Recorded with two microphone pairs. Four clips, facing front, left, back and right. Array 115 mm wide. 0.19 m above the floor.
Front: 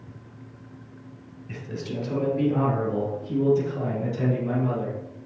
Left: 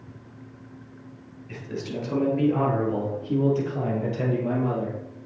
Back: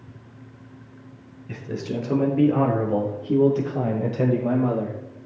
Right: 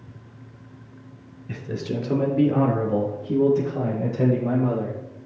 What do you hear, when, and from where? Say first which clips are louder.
1.5 s a man speaking: right 3 dB, back 4 dB; 125° right, 3.5 m; by 5.0 s 175° right, 6 m